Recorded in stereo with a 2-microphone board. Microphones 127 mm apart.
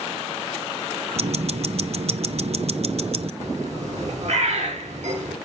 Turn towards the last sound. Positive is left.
turn(degrees=-70)  # may be behind; listen again after turning